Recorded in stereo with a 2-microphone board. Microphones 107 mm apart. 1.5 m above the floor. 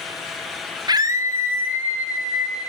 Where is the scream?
40° right (ahead or behind), 0.7 m; by 2.7 s 10° right (ahead or behind), 2 m.